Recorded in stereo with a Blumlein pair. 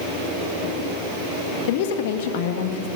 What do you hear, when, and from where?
1.7 s a woman speaking: 50° left, 1.8 m